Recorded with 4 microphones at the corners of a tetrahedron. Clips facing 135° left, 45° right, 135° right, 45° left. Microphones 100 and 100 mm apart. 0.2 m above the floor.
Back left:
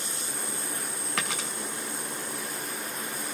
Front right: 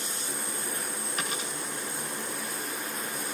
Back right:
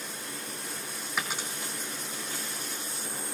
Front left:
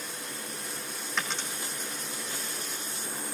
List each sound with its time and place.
1.2 s a dropped coin: 145° left, 3 m